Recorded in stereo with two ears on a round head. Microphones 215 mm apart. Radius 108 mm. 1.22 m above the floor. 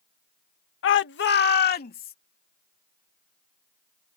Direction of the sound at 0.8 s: 55° left (ahead or behind).